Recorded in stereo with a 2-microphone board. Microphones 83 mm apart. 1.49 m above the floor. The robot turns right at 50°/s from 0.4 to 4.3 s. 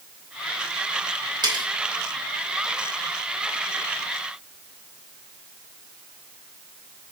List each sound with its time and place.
1.4 s cutlery clinking: 55° right (ahead or behind), 3 m; by 1.6 s 65° right (ahead or behind), 3 m